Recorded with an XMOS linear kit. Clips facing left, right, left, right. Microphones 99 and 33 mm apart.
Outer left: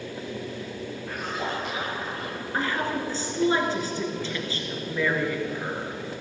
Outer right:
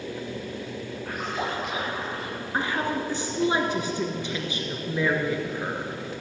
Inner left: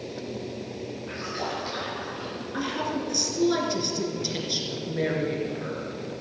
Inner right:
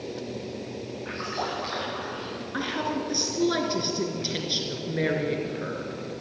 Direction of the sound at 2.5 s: 15° right (ahead or behind).